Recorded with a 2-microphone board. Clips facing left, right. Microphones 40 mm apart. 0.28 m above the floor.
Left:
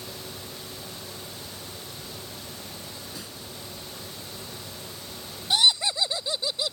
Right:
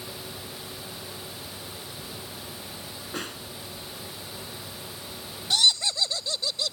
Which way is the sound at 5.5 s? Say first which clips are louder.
Left 1 dB; 20° left (ahead or behind).